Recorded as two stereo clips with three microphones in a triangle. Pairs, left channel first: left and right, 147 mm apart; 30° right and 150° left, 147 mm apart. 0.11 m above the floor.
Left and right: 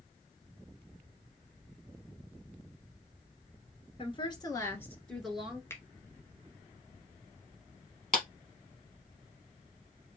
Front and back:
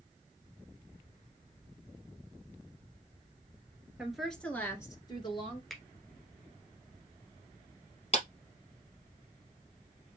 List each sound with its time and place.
4.0 s a woman speaking: 65° left, 1.6 m; by 5.6 s 15° right, 1.6 m
5.7 s a finger snap: 55° left, 1.0 m
8.1 s a clap: 5° left, 2.5 m